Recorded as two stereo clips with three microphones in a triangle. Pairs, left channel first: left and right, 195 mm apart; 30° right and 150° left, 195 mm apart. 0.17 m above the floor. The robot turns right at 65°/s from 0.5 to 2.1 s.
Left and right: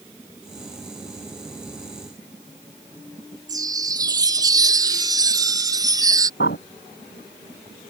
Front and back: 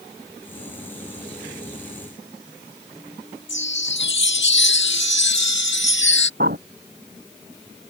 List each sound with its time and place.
3.5 s a chime: 20° right
6.4 s a bird: 115° left